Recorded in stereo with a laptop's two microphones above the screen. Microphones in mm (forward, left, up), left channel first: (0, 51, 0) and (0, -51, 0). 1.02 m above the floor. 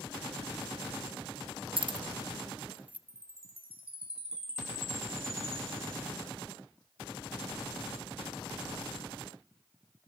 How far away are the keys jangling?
About 0.5 m.